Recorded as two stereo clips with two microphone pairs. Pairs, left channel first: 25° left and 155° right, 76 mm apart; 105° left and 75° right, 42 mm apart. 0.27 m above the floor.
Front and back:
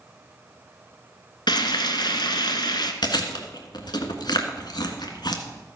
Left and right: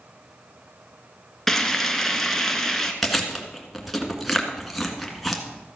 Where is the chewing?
15° left, 1.6 m.